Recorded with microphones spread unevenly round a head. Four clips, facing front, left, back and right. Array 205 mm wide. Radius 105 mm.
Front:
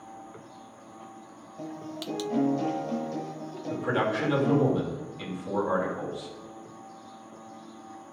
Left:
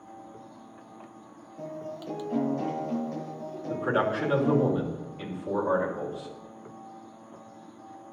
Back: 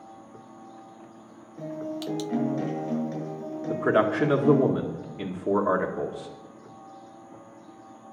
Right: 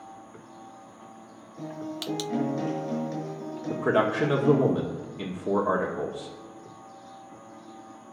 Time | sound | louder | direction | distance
1.6 | a guitar | right 2 dB, back 5 dB | 130° right | 6.5 m
3.7 | a man speaking | right 3 dB, back 5 dB | 140° right | 1.9 m